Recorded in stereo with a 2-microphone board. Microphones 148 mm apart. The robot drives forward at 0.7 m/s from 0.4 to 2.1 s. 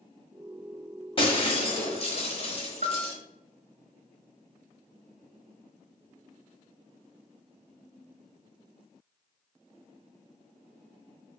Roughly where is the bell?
Right.